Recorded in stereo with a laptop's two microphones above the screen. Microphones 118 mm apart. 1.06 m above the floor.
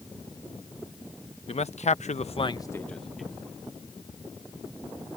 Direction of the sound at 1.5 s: 60° left (ahead or behind).